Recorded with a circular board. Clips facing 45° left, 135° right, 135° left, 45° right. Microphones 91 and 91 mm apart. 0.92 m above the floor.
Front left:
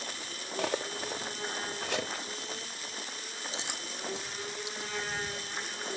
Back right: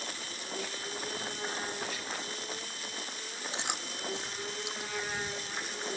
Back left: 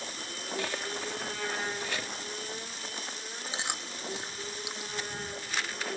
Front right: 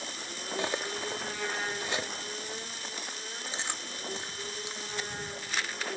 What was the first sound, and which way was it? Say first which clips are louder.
Cutlery clinking: front left 9 dB, front right 3 dB; 25° left.